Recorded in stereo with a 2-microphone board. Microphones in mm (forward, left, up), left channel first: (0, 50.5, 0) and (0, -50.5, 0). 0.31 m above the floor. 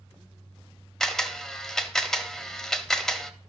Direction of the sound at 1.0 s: 5° left (ahead or behind).